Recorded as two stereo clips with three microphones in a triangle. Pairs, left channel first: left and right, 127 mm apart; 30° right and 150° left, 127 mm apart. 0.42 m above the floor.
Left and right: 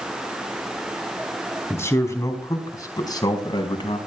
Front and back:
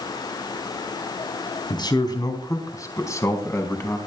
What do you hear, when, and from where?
1.7 s a man speaking: 20° left, 3.5 m; by 4.0 s 40° left, 4 m